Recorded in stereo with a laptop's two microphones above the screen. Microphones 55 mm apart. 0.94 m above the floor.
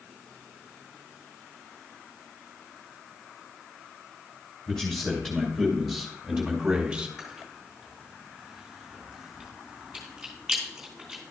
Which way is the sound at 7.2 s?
5° right (ahead or behind).